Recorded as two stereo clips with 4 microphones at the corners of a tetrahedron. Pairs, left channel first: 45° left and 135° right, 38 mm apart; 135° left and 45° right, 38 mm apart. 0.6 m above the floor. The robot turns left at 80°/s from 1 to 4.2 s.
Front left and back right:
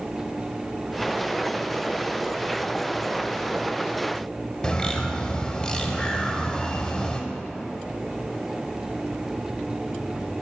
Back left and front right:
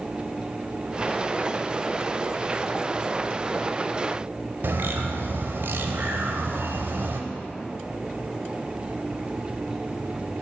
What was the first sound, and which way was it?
A bird, 20° right.